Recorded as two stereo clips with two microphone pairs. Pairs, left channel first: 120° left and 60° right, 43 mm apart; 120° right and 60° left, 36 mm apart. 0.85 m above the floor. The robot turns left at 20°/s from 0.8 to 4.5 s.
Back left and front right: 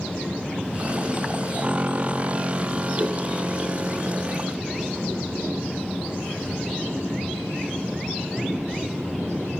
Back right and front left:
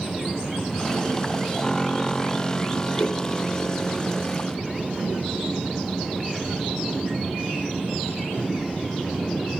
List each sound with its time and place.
3.0 s a whoosh: 110° right, 5 m; by 3.2 s 115° right, 5 m